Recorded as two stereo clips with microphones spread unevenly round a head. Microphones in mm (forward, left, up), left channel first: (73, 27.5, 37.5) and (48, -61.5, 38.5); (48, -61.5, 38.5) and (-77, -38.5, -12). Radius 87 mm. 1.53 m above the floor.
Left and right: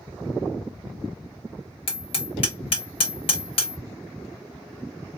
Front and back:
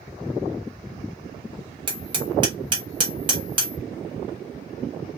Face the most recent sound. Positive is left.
turn(degrees=95)